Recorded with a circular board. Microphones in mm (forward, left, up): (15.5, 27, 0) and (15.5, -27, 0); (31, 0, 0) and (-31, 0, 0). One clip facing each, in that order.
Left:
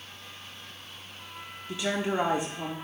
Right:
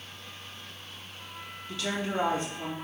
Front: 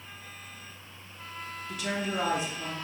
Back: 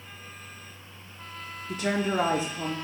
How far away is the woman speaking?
About 0.9 m.